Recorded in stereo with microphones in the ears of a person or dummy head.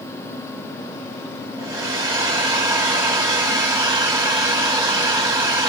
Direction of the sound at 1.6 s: 20° right (ahead or behind).